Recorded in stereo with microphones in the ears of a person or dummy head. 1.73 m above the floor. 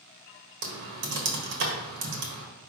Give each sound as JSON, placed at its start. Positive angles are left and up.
{"t": 0.6, "sound": "typing on a keyboard", "side_deg": -65, "distance_m": 1.8}